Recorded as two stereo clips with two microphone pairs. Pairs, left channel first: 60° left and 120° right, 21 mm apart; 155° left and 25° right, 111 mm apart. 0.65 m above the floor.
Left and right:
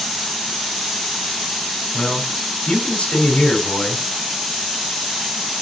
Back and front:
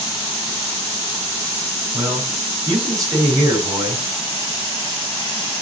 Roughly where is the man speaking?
Ahead left.